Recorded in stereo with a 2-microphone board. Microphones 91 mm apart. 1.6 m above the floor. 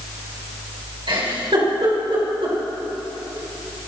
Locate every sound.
1.1 s a giggle: 70° right (ahead or behind), 4.5 m